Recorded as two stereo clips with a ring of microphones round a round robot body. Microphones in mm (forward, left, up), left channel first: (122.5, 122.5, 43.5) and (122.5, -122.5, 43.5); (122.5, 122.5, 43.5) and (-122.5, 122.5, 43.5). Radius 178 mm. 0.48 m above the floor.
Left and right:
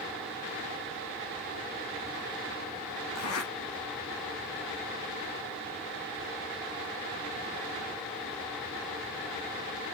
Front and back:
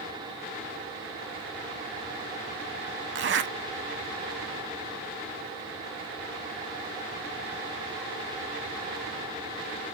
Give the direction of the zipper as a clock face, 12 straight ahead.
7 o'clock.